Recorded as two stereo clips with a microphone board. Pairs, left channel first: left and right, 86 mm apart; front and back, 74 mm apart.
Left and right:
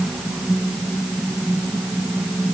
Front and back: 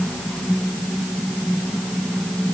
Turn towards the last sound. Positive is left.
No sound to turn to.